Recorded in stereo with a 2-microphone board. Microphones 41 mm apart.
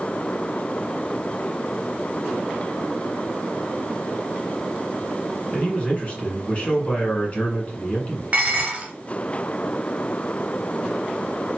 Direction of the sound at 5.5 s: 35° left (ahead or behind).